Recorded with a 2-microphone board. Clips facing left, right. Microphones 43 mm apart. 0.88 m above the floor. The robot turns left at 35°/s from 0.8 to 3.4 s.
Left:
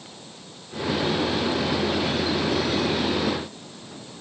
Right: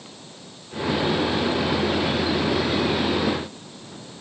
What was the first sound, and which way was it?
Only background noise.